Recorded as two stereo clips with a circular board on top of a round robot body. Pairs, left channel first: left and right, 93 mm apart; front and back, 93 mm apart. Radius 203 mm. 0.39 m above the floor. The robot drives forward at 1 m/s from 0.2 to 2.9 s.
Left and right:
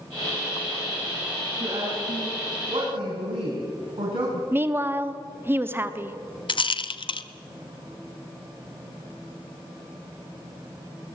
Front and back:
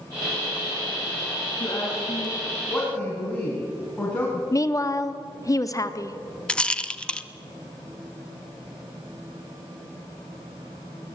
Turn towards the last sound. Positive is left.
turn(degrees=80)